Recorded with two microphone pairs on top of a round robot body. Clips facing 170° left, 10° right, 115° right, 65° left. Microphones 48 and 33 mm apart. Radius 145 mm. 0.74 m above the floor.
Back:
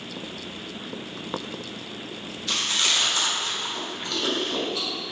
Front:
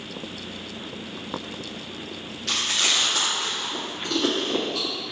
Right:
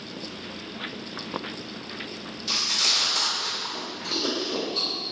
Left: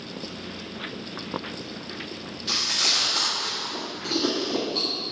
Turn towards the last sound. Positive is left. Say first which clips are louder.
# front 1 dB, even
turn(degrees=30)